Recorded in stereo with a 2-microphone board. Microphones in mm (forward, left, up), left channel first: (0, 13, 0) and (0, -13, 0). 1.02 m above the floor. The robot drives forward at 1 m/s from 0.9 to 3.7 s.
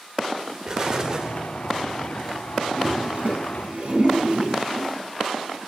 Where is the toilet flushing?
45° right (ahead or behind), 7.5 m; by 4.9 s 50° right (ahead or behind), 6.5 m.